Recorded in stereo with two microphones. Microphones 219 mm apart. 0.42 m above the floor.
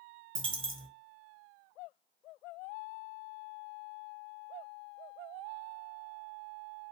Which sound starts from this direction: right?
A dropped coin, at 0.3 s.